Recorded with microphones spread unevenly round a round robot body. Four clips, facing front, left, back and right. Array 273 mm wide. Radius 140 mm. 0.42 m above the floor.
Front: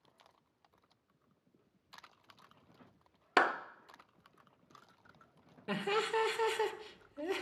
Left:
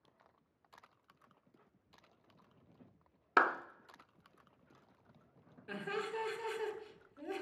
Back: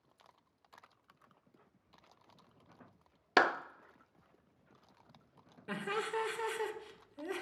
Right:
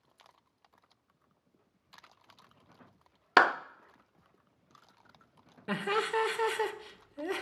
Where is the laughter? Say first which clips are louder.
Right 9 dB, front 3 dB; 60° right, 1.3 m.